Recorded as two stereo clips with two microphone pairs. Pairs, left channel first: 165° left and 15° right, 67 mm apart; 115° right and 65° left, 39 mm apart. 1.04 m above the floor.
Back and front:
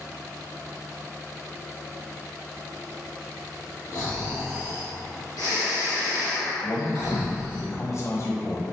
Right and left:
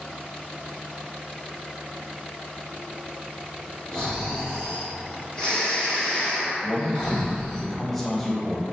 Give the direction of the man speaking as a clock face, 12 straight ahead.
7 o'clock.